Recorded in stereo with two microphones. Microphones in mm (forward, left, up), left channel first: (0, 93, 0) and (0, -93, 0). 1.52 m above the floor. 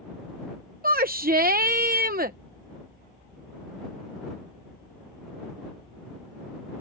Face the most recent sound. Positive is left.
turn(degrees=-55)  # may be behind; listen again after turning